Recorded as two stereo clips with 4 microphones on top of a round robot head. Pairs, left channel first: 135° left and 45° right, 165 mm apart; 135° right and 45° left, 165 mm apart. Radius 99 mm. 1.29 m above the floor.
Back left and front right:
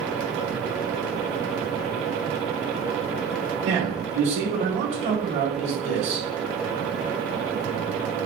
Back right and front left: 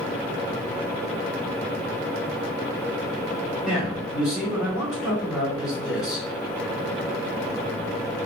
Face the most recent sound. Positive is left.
turn(degrees=-35)